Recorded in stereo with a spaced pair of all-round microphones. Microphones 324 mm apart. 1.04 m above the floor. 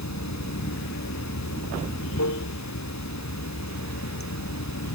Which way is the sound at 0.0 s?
55° left (ahead or behind).